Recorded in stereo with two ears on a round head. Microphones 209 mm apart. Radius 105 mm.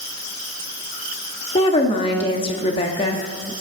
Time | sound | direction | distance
1.6 | a woman speaking | 25° left (ahead or behind) | 0.6 m